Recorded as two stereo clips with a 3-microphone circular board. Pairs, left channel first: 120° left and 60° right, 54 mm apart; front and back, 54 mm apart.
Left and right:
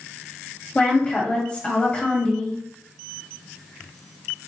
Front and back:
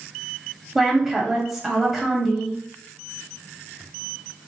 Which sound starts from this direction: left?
A woman speaking, at 0.8 s.